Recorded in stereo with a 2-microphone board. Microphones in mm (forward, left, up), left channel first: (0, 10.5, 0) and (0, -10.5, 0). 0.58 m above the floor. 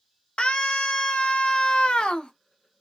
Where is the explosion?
I don't hear an explosion.